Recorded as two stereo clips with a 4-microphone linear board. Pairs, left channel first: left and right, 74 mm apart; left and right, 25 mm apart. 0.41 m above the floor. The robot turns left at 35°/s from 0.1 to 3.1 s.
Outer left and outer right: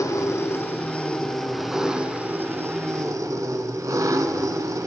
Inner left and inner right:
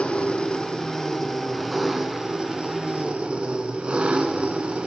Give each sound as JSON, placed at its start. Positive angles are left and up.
{"t": 0.0, "sound": "an engine running", "azimuth_deg": 55, "distance_m": 1.1}